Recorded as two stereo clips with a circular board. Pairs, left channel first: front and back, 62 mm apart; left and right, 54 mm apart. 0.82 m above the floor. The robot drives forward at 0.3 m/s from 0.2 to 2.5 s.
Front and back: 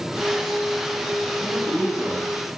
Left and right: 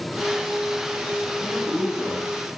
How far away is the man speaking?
About 1.1 m.